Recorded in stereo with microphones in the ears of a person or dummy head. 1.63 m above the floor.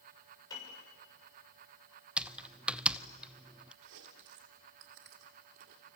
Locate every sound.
0.5 s a piano: 25° left (ahead or behind), 6.5 m
2.2 s typing on a keyboard: 5° right (ahead or behind), 0.5 m
3.8 s chewing: 65° right (ahead or behind), 2.5 m